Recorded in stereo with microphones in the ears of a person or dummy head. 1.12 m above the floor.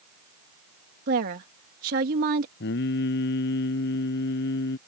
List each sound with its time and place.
1.1 s a woman speaking: 45° right (ahead or behind)
2.6 s singing: 65° left (ahead or behind)